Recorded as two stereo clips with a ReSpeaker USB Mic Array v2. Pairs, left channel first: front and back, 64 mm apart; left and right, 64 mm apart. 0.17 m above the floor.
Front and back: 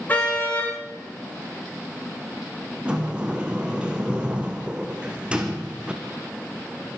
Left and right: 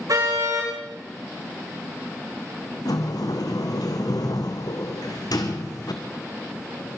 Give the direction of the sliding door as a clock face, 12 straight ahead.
9 o'clock.